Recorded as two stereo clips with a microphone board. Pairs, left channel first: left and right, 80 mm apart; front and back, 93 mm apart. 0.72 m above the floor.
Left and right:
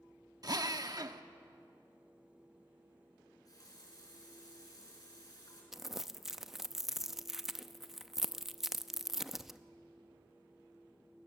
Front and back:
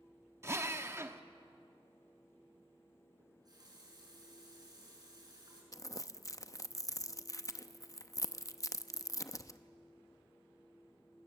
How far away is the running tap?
About 6 m.